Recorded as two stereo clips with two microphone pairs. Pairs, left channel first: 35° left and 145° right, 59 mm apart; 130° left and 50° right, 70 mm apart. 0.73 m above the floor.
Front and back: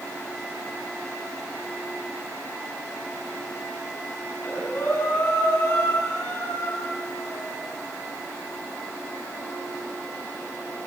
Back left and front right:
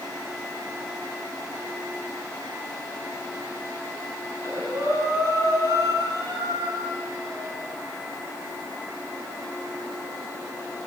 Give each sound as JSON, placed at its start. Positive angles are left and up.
{"t": 4.3, "sound": "breathing", "azimuth_deg": -10, "distance_m": 8.5}